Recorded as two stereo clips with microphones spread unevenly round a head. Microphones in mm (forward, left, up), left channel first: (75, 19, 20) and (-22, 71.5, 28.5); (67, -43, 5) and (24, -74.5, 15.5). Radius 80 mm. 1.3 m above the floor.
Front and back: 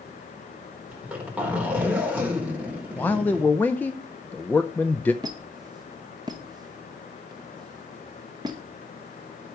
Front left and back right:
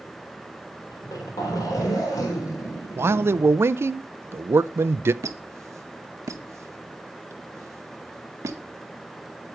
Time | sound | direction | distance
0.9 | a zipper | 75° left | 4 m
3.0 | a man speaking | 110° right | 0.5 m
5.2 | a squeak | 145° right | 0.7 m